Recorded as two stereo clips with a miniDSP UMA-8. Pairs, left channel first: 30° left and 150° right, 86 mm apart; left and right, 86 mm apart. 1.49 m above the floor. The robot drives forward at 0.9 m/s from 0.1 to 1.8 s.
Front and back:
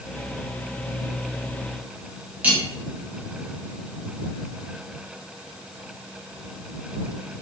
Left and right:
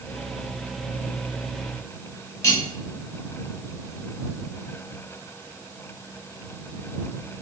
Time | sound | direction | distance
2.4 | cutlery clinking | 140° left | 1.2 m